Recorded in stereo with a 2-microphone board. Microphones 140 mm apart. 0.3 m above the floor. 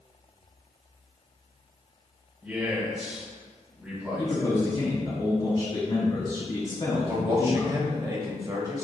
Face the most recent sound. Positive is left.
turn(degrees=-30)  # may be behind; listen again after turning